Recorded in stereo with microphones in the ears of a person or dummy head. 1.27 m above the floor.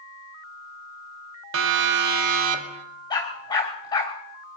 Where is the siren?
70° right (ahead or behind), 2 m; by 2.8 s 30° right (ahead or behind), 2.5 m.